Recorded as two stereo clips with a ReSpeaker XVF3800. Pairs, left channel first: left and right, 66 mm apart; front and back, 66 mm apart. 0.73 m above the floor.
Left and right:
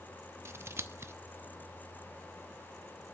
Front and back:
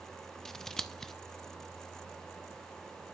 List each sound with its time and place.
0.5 s scissors: 80° right, 0.6 m